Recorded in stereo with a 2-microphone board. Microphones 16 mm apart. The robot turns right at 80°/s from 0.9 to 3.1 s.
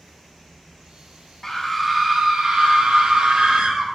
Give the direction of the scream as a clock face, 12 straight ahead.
7 o'clock.